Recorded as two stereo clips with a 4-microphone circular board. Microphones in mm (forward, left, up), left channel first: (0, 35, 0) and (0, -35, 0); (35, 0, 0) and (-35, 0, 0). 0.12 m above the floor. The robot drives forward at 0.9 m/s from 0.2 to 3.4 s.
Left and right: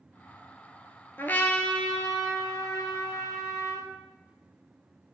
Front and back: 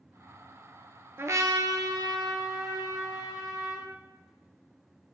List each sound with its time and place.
1.2 s a trumpet: 140° left, 0.5 m; by 3.9 s 175° left, 2.5 m